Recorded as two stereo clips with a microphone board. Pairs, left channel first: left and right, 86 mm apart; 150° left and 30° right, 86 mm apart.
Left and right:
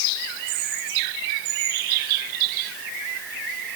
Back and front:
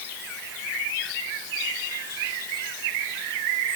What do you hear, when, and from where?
Only background noise.